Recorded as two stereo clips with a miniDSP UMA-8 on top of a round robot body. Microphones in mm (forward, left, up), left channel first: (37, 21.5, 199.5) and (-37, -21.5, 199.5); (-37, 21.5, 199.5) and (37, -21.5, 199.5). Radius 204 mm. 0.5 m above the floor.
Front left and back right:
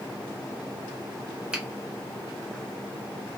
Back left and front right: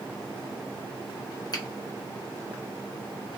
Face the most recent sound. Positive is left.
turn(degrees=135)